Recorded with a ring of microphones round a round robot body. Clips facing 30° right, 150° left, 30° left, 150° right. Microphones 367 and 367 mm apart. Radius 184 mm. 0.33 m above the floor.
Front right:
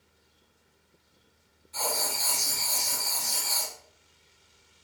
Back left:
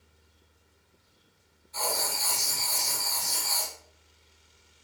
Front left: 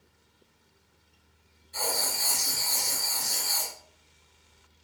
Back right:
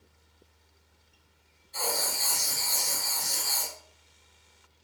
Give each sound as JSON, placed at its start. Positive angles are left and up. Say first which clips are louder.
{"t": 1.7, "sound": "writing", "louder": "even, even", "azimuth_deg": -10, "distance_m": 1.5}